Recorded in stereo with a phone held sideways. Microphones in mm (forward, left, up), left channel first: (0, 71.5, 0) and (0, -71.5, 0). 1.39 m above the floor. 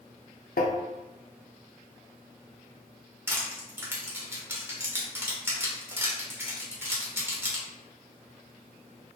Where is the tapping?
75° left (ahead or behind), 0.6 m.